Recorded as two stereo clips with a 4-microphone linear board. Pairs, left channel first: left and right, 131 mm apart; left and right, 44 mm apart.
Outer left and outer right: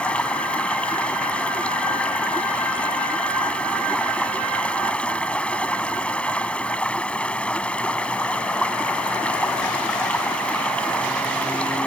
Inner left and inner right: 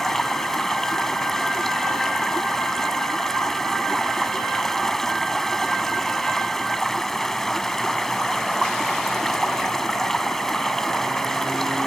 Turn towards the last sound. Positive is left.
turn(degrees=10)  # may be behind; listen again after turning